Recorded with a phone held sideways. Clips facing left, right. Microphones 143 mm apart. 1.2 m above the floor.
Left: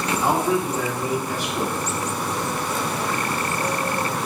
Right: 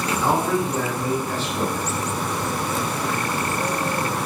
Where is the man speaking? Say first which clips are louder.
Even; 15° left (ahead or behind), 1.7 m.